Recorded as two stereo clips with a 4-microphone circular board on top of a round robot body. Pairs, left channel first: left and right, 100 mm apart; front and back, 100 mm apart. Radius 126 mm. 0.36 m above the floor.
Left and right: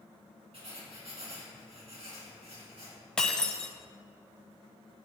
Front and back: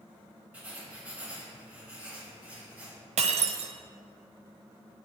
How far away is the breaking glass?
About 0.8 m.